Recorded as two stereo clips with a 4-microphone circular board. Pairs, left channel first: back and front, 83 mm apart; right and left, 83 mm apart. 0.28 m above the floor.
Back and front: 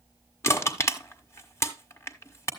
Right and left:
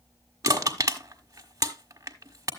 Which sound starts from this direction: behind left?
Crushing, at 0.4 s.